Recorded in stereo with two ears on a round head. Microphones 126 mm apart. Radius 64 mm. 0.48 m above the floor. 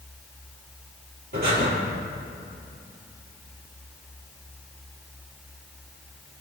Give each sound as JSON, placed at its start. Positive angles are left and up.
{"t": 1.3, "sound": "breathing", "side_deg": -70, "distance_m": 5.0}